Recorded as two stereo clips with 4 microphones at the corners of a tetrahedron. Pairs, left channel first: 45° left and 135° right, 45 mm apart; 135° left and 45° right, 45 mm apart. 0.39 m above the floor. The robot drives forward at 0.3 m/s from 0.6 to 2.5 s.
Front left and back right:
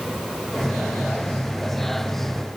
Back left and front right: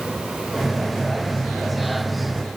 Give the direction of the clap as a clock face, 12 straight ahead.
I don't hear a clap.